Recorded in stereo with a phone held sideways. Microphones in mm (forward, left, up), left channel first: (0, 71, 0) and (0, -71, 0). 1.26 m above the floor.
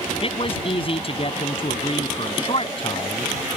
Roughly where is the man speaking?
Left.